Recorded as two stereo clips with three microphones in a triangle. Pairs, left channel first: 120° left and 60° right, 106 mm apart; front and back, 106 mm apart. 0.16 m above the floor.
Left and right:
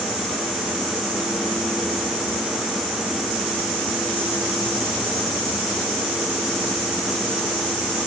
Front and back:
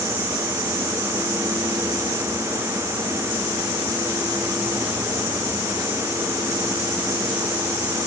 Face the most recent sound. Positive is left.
No sound to turn to.